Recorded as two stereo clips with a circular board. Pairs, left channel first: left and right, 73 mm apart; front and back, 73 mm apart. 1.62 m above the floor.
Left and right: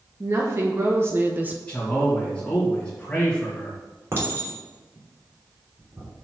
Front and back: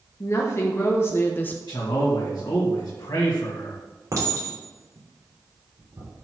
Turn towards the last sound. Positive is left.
turn(degrees=-140)